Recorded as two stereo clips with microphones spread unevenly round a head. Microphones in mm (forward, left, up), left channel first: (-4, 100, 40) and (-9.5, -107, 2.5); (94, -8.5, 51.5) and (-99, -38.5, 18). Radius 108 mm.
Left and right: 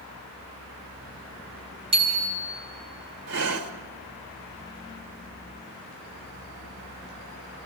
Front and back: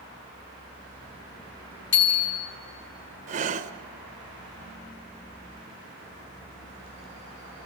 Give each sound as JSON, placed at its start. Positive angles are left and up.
{"t": 1.9, "sound": "a bicycle bell", "azimuth_deg": -25, "distance_m": 6.0}
{"t": 3.3, "sound": "breathing", "azimuth_deg": -115, "distance_m": 1.2}